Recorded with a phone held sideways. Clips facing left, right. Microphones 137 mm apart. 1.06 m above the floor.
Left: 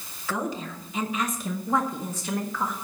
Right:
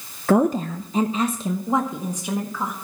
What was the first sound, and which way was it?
A woman speaking, 55° right (ahead or behind).